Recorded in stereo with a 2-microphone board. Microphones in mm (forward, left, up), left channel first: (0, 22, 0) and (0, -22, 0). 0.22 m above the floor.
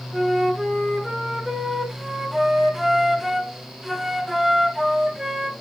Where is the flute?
5° right (ahead or behind), 1.5 m.